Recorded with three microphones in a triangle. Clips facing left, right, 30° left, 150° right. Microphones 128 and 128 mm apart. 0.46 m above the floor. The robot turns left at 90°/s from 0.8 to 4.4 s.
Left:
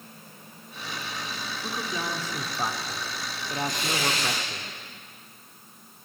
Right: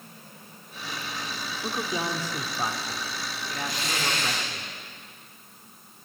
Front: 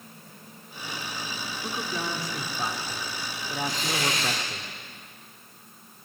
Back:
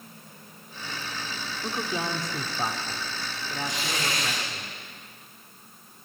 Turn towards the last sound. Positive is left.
turn(degrees=75)